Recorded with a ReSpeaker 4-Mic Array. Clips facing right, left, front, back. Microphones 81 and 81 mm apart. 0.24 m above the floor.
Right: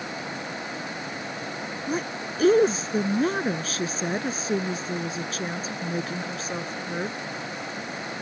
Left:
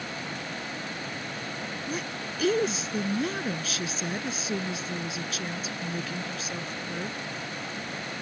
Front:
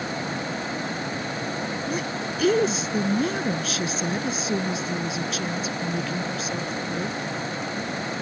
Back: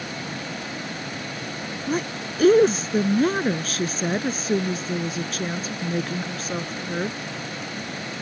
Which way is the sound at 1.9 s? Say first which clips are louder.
Right 8 dB, back 1 dB; 135° right.